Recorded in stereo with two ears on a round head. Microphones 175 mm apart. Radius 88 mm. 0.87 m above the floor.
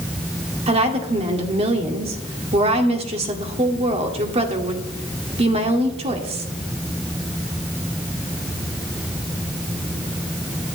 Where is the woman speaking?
30° right (ahead or behind), 1.9 m.